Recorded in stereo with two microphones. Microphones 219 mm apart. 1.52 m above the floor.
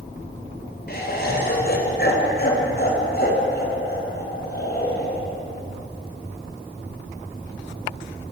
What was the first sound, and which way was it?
Laughter, 45° left (ahead or behind).